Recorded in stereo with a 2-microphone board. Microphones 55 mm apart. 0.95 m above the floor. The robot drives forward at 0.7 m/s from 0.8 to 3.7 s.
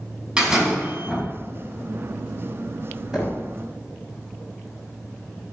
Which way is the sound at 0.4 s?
20° right (ahead or behind).